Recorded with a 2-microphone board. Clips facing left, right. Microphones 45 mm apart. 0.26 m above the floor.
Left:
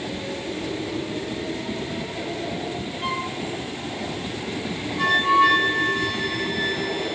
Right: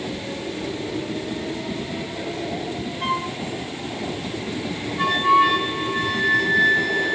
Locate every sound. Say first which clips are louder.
3.0 s a flute: right 3 dB; 45° right (ahead or behind), 3 m
5.0 s a flute: right 1 dB; 15° right (ahead or behind), 1.8 m